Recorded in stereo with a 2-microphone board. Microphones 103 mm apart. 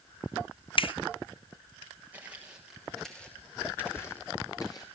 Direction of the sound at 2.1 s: 15° right (ahead or behind).